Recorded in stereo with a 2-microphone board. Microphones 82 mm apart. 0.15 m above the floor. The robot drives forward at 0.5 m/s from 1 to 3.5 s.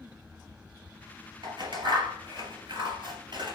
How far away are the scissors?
About 3 m.